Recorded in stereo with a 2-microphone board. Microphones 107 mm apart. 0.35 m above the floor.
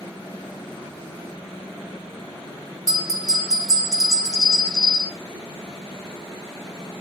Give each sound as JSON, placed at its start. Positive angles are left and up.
{"t": 2.9, "sound": "a bell", "side_deg": 30, "distance_m": 1.1}